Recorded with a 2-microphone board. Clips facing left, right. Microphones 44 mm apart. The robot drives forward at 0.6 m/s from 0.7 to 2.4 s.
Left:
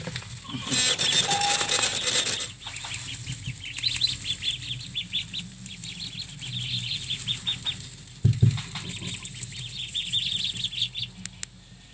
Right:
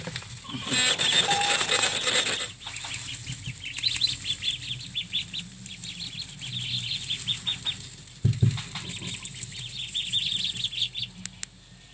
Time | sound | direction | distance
1.3 | a bell | 20° right (ahead or behind) | 1.9 m